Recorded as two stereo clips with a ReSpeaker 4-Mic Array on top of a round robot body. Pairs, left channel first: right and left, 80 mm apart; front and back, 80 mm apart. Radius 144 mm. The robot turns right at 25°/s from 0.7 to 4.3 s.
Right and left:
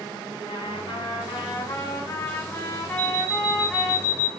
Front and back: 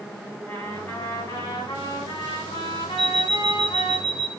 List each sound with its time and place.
0.5 s a trumpet: 70° right, 1.7 m; by 4.0 s 10° left, 1.7 m
3.0 s an alarm clock: 15° right, 1.5 m; by 4.3 s 20° left, 1.5 m